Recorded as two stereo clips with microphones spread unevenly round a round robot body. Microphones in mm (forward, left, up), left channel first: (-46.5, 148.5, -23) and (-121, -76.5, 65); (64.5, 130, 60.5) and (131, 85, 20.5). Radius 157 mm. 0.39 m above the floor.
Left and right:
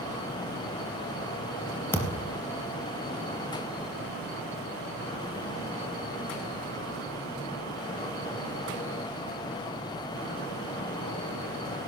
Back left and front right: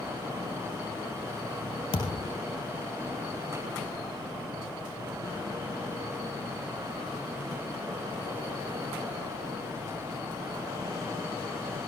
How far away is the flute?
I don't hear a flute.